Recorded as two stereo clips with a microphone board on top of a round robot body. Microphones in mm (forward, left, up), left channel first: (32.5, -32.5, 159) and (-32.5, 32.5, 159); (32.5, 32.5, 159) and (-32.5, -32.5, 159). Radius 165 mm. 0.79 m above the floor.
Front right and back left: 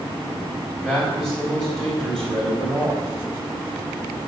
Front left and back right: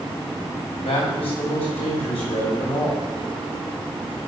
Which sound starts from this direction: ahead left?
A man speaking, at 0.8 s.